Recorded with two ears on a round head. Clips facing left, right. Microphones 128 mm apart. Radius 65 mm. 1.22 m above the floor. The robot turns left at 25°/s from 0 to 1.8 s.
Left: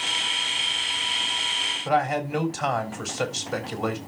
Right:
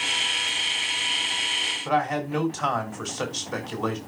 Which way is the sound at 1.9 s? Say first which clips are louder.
Left 1 dB; 10° left (ahead or behind).